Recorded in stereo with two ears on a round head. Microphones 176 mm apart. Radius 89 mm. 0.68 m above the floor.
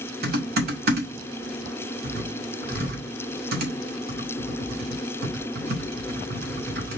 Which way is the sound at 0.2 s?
50° right (ahead or behind).